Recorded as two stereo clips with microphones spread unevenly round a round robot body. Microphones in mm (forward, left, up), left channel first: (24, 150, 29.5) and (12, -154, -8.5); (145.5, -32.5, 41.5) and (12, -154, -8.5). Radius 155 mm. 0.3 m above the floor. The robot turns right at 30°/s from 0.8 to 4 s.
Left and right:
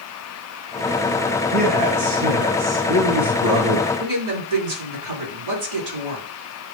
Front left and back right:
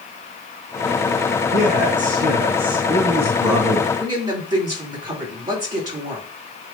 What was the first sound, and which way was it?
A man speaking, 120° right.